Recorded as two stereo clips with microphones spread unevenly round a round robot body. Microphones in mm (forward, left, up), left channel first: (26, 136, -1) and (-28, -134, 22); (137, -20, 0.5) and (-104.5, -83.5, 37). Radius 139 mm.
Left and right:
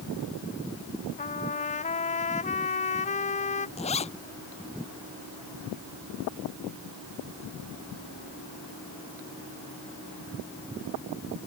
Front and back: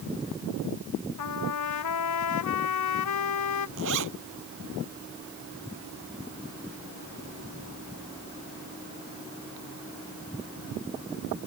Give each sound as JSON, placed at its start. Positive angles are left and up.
{"t": 1.2, "sound": "a trumpet", "azimuth_deg": 15}
{"t": 3.8, "sound": "a zipper", "azimuth_deg": 145}